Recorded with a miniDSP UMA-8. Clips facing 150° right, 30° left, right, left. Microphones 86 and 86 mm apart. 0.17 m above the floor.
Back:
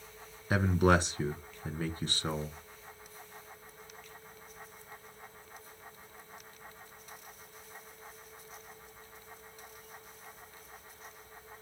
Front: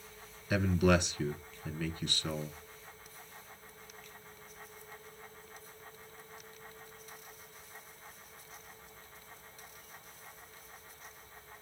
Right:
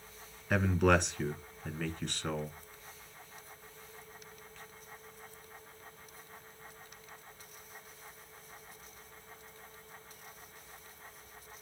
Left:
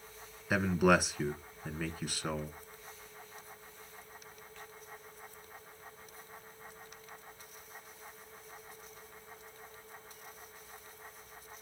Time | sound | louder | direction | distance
0.5 | a man speaking | back 2 dB, even | 175° left | 1.6 m